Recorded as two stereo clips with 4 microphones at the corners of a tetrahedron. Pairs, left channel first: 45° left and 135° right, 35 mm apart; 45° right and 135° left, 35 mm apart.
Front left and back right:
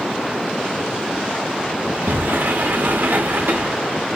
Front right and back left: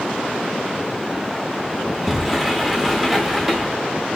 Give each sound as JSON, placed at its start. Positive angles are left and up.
{"t": 1.9, "sound": "a sliding door", "azimuth_deg": -145, "distance_m": 0.7}